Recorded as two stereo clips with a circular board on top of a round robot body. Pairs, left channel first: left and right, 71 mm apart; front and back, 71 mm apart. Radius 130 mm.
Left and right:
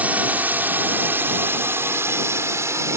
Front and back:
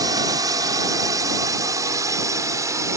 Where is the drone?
155° right; by 3.0 s 135° right.